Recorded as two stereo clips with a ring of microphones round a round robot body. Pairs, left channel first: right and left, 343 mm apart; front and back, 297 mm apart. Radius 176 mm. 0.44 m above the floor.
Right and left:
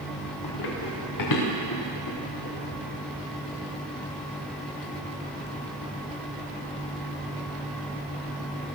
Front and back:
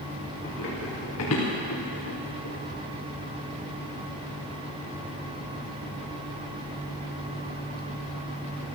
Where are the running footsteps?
65° right, 3.5 m; by 2.5 s 35° right, 4 m.